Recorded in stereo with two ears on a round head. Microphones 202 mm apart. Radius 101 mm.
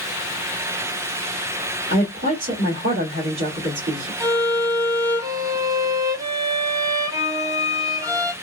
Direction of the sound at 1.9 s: 35° right (ahead or behind).